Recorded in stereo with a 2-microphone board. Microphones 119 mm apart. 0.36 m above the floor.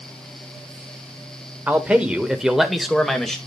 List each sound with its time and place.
1.7 s a man speaking: 15° right (ahead or behind), 1.4 m; by 3.4 s 5° left (ahead or behind), 1.9 m